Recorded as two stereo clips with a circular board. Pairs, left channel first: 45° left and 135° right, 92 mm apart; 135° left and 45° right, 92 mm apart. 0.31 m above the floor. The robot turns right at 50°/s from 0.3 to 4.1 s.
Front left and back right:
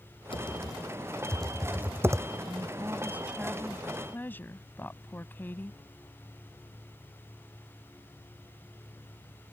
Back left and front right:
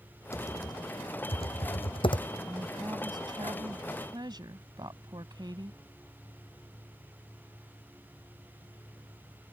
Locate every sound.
0.3 s typing on a keyboard: 75° left; by 2.3 s 175° left
2.5 s a woman speaking: 100° right; by 5.8 s 20° right